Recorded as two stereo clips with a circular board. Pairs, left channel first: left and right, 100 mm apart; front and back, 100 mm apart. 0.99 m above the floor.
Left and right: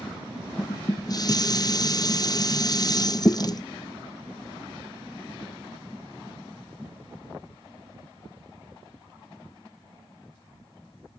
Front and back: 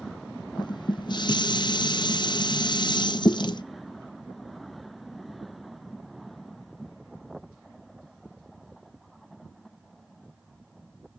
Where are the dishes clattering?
40° left, 0.5 m.